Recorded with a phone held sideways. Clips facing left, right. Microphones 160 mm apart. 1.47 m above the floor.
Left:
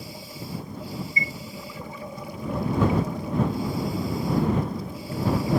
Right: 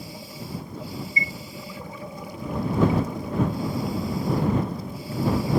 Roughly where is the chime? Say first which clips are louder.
Even; right.